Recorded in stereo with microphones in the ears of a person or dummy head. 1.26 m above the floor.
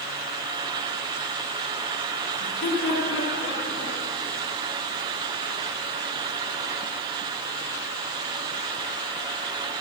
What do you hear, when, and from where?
2.4 s laughter: 70° left (ahead or behind), 9 m